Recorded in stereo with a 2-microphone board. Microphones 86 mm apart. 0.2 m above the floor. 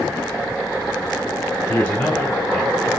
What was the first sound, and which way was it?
A man speaking, 20° left (ahead or behind).